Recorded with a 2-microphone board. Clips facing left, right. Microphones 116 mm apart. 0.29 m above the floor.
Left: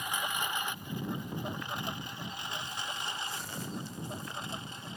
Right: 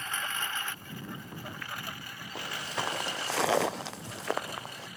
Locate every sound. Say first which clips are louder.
0.0 s a lawn mower: left 2 dB; 15° left (ahead or behind); by 5.0 s 25° left (ahead or behind)
2.4 s footsteps: right 9 dB; 85° right; by 4.9 s 80° right